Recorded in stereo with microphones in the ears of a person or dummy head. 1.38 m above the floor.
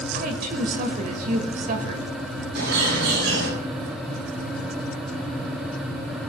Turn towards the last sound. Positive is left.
turn(degrees=-70)  # may be behind; listen again after turning